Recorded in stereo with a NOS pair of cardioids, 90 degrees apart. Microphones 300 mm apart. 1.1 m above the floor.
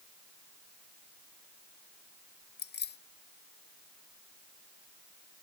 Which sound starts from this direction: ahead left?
Keys jangling, at 2.6 s.